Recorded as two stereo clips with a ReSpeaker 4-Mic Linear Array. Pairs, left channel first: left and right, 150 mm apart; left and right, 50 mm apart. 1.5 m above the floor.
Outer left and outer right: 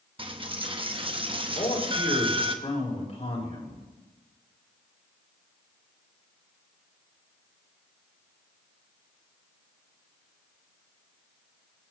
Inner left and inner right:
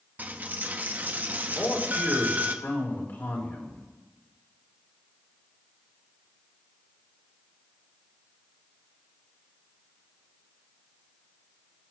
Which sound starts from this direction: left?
A man speaking, at 1.6 s.